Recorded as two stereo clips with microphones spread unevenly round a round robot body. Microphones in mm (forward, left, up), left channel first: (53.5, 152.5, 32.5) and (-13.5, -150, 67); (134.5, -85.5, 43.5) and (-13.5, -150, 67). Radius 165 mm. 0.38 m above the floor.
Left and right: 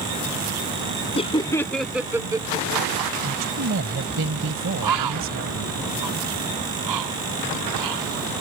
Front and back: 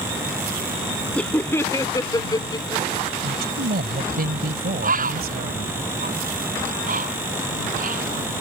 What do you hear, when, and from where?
1.1 s laughter: 75° left; by 3.3 s 30° right
3.2 s a man speaking: 150° right
4.8 s a bird: 130° right